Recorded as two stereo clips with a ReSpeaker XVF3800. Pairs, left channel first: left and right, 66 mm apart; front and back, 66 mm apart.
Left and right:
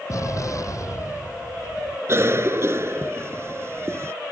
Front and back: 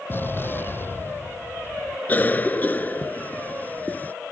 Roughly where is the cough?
Ahead right.